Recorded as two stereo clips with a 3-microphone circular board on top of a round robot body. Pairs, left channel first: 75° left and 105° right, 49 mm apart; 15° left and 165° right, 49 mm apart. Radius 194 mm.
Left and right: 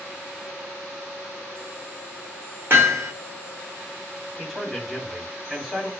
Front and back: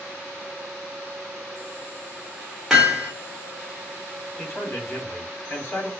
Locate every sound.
2.7 s hammering: 80° right, 1.5 m
4.4 s a man speaking: 30° right, 1.7 m